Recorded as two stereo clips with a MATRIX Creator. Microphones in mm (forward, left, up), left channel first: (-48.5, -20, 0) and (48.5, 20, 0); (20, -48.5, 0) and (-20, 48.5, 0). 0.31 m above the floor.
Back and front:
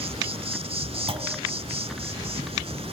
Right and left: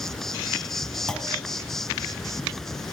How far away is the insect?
About 1.0 m.